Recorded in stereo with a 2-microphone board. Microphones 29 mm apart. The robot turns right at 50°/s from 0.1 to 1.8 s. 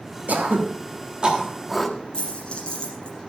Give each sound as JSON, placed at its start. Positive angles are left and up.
{"t": 0.3, "sound": "throat clearing", "side_deg": -75, "distance_m": 1.4}
{"t": 2.1, "sound": "a dropped coin", "side_deg": 40, "distance_m": 5.5}